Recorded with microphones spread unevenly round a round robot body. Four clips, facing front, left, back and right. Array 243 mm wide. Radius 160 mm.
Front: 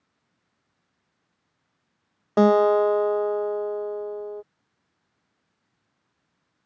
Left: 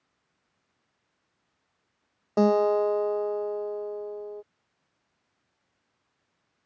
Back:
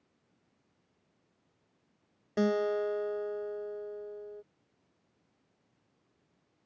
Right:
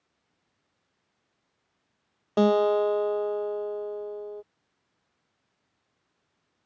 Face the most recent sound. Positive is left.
turn(degrees=5)